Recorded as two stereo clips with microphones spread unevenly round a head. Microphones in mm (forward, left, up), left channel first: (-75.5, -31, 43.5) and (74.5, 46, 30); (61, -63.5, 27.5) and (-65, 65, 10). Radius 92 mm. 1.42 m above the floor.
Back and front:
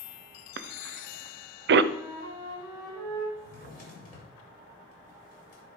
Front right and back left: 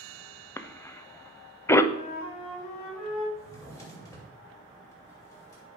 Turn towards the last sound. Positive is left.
turn(degrees=-115)